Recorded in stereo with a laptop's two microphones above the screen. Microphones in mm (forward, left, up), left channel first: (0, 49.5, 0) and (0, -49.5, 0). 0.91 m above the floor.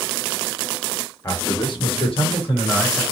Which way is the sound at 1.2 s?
35° left (ahead or behind).